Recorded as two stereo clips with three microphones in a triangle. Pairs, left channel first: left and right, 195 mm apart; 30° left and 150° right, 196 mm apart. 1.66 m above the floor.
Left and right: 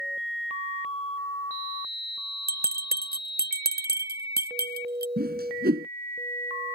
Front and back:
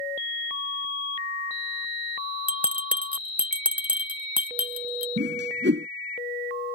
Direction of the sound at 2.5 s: 65° right.